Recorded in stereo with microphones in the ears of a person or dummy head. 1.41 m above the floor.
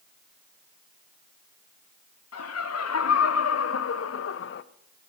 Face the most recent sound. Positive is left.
turn(degrees=50)  # may be behind; listen again after turning